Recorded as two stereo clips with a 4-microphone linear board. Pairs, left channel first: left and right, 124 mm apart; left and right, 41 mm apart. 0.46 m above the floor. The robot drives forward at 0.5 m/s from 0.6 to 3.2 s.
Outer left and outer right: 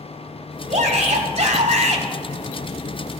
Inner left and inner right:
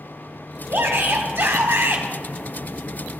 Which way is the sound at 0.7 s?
70° right (ahead or behind).